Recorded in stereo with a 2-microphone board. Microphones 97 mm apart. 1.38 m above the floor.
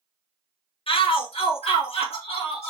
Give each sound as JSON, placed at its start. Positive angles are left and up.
{"t": 0.9, "sound": "a shout", "side_deg": 65, "distance_m": 1.1}